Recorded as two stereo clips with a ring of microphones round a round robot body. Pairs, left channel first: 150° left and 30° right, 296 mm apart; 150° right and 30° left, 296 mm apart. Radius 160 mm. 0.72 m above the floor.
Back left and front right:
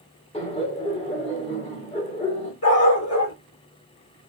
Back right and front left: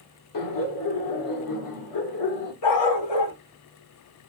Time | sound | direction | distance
0.3 | laughter | 140° right | 1.9 m
2.6 | a dog barking | 165° right | 3 m